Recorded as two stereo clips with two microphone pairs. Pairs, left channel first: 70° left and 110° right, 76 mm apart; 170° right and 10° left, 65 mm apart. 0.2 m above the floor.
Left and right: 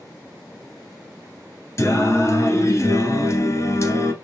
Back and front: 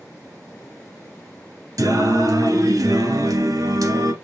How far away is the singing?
About 1.0 m.